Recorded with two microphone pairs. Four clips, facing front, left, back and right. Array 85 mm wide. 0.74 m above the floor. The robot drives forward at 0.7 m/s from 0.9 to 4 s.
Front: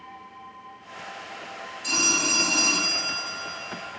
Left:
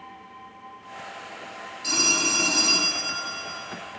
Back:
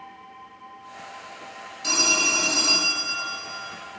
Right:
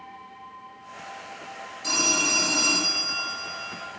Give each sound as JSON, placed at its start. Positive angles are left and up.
{"t": 1.8, "sound": "a phone ringing", "azimuth_deg": -150, "distance_m": 2.5}